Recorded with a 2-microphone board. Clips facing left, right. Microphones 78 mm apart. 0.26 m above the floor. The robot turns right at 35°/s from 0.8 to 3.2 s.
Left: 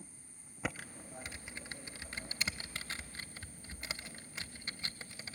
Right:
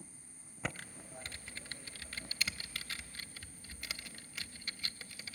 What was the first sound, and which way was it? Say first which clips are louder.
Typing on a keyboard: left 2 dB; 5° left (ahead or behind).